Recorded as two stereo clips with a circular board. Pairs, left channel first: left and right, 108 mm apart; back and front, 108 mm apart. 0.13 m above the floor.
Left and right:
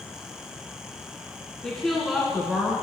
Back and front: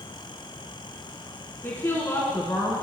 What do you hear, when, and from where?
1.6 s a woman speaking: 160° left, 1.6 m; by 2.8 s 155° right, 1.9 m